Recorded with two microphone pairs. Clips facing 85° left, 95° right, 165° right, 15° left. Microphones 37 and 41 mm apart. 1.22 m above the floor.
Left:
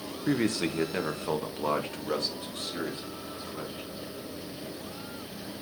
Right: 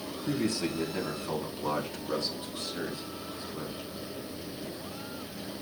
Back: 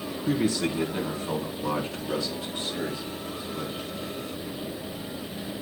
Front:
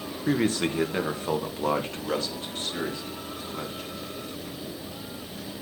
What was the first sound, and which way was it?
A man speaking, 60° left.